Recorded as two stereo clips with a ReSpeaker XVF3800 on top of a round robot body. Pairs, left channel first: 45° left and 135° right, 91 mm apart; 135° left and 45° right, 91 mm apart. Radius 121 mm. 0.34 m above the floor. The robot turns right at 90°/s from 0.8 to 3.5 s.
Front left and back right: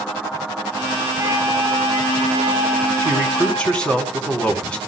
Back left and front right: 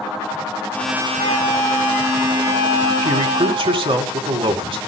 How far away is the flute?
About 1.9 m.